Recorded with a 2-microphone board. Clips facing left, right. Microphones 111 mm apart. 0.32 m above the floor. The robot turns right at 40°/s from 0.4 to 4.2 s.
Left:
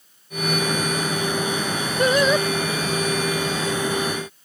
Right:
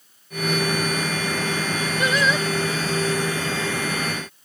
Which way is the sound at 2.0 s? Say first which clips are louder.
Left 5 dB; 50° left (ahead or behind).